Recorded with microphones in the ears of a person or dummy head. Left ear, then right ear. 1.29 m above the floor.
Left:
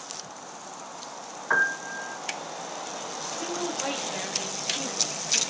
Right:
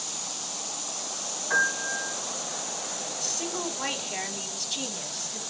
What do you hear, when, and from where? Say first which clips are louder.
1.5 s a piano: left 1 dB; 40° left (ahead or behind), 2.5 m
3.2 s a woman speaking: even; 60° right (ahead or behind), 5 m